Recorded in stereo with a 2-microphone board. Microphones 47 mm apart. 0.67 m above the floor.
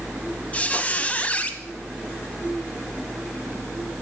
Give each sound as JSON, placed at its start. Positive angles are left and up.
{"t": 0.5, "sound": "a squeak", "side_deg": 30, "distance_m": 0.8}